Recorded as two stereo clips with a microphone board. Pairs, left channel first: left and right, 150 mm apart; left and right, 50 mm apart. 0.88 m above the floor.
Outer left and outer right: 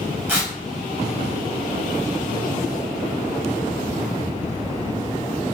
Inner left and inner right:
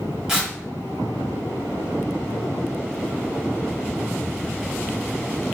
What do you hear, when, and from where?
0.3 s tearing paper: 15° right (ahead or behind), 1.2 m